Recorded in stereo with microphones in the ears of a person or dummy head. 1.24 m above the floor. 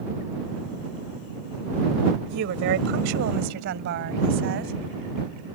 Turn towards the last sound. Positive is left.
turn(degrees=-65)  # may be behind; listen again after turning